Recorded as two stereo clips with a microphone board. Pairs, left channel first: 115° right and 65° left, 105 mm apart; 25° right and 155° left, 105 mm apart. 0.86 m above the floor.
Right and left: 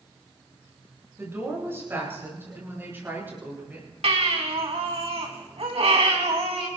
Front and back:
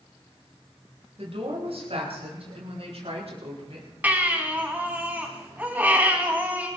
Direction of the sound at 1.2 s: 135° left.